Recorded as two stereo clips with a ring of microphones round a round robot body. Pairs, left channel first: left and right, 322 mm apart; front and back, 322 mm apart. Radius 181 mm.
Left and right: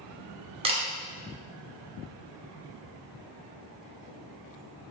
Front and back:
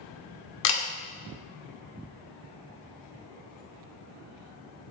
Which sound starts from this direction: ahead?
A camera shutter, at 0.6 s.